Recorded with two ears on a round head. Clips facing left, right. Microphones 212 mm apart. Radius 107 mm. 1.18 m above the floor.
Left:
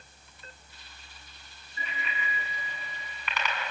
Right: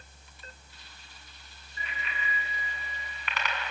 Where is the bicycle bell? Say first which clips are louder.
Left 2 dB; 85° left, 8 m; by 3.7 s 80° left, 7 m.